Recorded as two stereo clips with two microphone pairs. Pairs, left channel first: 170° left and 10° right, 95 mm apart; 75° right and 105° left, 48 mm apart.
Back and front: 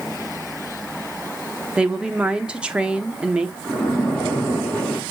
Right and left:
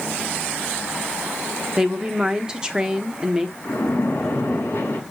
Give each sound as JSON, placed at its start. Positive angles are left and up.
{"t": 1.8, "sound": "a woman speaking", "azimuth_deg": 55, "distance_m": 1.0}
{"t": 3.6, "sound": "a splash", "azimuth_deg": -115, "distance_m": 6.0}